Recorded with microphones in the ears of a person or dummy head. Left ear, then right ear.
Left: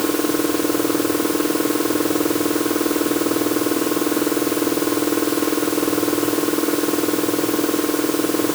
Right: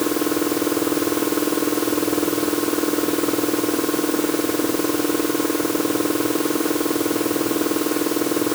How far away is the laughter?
I don't hear laughter.